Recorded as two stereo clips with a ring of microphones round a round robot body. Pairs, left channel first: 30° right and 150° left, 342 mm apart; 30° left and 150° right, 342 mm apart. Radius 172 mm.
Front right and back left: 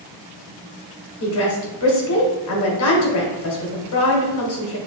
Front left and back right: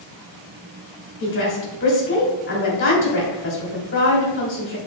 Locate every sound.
1.2 s a woman speaking: 15° right, 1.9 m